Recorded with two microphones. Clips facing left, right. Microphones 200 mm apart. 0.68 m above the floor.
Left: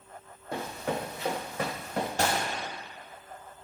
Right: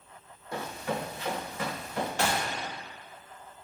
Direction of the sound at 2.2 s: 40° left (ahead or behind).